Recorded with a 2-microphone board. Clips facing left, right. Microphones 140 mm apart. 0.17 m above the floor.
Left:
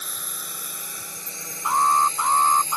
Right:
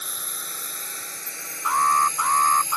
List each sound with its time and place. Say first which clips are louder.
0.0 s a drone: even; centre (ahead or behind); by 2.8 s 35° left (ahead or behind)
1.6 s an alarm: left 1 dB; 20° left (ahead or behind)